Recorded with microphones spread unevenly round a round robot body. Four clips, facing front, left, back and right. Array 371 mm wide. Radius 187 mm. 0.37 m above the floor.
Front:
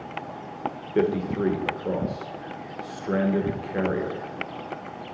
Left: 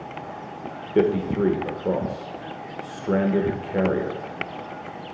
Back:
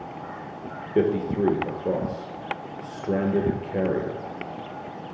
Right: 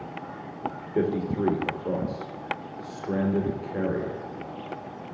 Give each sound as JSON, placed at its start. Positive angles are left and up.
{"t": 0.9, "sound": "a man speaking", "azimuth_deg": 115, "distance_m": 1.0}